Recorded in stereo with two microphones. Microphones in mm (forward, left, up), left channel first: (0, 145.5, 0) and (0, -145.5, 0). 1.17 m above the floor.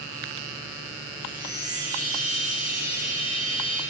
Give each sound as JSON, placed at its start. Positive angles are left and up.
{"t": 1.2, "sound": "a chime", "side_deg": 5, "distance_m": 1.7}